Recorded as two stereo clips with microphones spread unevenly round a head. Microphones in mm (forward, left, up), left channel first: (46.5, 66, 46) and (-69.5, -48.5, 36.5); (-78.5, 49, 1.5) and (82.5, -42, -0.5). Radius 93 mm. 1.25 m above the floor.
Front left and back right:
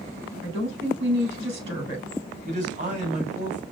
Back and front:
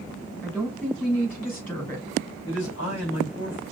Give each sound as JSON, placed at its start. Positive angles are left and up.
{"t": 0.4, "sound": "a woman speaking", "azimuth_deg": -130, "distance_m": 3.5}
{"t": 2.5, "sound": "a man speaking", "azimuth_deg": 180, "distance_m": 3.0}